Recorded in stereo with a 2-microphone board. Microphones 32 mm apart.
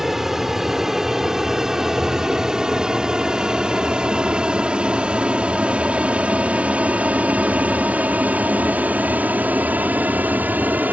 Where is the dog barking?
No dog barking in this recording.